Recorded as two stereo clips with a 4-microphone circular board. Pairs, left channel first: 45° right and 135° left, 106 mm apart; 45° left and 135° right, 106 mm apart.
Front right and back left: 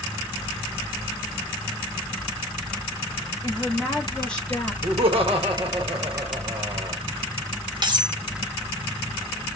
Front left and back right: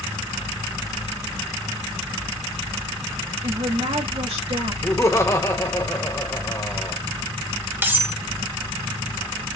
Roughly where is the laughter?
Left.